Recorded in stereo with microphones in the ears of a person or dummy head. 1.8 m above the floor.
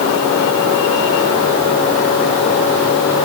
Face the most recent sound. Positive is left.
No sound to turn to.